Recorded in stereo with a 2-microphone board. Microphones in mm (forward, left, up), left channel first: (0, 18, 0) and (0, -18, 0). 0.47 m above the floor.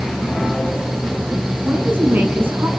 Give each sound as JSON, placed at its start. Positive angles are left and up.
{"t": 1.6, "sound": "a woman speaking", "side_deg": -75, "distance_m": 5.0}